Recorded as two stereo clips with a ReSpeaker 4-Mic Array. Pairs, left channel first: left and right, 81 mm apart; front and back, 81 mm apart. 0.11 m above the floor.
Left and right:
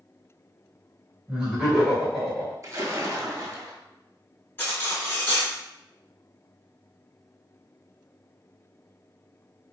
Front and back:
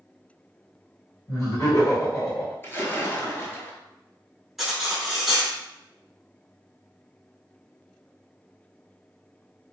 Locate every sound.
1.3 s laughter: 15° right, 1.5 m; by 2.5 s 15° left, 1.5 m
2.6 s a splash: 55° right, 0.6 m
4.6 s cutlery clinking: 95° left, 0.9 m